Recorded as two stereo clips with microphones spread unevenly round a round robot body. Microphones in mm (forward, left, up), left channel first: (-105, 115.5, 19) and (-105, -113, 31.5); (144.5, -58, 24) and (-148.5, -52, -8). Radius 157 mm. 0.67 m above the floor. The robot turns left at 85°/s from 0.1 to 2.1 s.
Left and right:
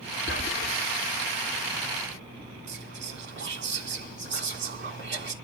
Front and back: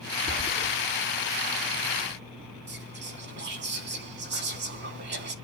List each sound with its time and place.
0.3 s whispering: 130° left, 2.5 m; by 0.8 s 85° left, 2.5 m
2.7 s whispering: 125° right, 5 m